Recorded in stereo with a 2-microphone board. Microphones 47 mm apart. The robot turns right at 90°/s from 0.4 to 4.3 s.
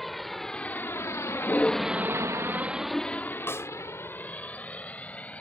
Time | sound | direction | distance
0.0 | a vehicle | 5° left (ahead or behind) | ?
3.5 | a snare drum | 60° left (ahead or behind) | ?